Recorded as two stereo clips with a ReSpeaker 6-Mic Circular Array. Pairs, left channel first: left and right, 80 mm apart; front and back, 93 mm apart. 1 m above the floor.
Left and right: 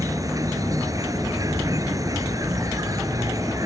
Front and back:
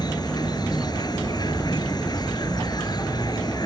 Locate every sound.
0.0 s an insect: 45° right